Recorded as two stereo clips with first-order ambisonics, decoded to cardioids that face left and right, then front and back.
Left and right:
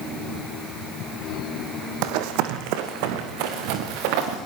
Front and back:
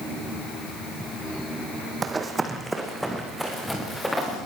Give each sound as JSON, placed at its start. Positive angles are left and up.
{"t": 2.0, "sound": "running footsteps", "azimuth_deg": -110, "distance_m": 1.9}